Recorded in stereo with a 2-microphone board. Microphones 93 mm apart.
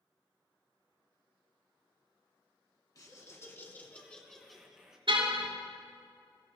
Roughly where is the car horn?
Right.